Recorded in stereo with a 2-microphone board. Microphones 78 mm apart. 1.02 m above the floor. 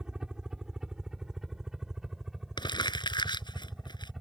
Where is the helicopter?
10° right (ahead or behind); by 4.2 s 5° right (ahead or behind).